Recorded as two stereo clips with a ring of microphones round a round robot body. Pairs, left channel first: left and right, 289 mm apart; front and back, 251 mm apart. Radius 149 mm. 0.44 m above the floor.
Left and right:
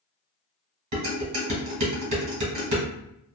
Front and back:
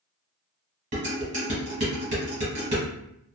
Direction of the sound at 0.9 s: 115° right.